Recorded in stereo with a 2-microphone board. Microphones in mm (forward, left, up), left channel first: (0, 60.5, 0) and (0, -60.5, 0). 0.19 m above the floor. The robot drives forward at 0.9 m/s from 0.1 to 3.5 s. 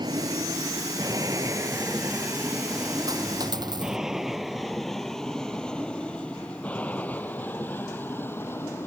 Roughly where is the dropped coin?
Right.